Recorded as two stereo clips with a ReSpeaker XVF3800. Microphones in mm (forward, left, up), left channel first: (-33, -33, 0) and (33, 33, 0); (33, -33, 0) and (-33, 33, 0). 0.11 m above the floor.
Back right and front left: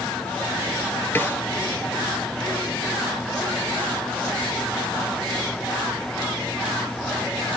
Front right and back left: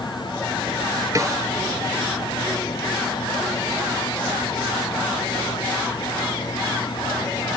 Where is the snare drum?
170° left, 1.5 m.